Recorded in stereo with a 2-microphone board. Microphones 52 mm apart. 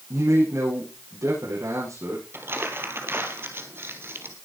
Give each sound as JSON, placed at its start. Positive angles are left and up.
{"t": 0.1, "sound": "a man speaking", "side_deg": -85, "distance_m": 9.5}
{"t": 2.3, "sound": "crumpling", "side_deg": -50, "distance_m": 2.5}